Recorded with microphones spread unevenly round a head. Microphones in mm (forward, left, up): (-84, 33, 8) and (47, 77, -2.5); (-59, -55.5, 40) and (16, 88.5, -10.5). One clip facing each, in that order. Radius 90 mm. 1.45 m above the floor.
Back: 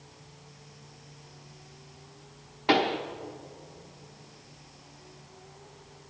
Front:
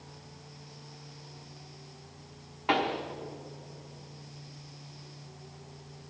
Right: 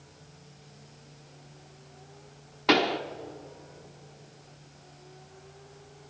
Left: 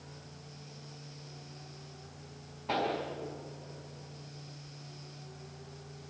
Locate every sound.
2.7 s a pop: 95° right, 1.1 m